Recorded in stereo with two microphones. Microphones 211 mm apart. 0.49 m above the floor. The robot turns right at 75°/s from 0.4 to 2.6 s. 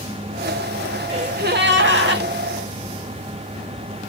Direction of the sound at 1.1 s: 150° right.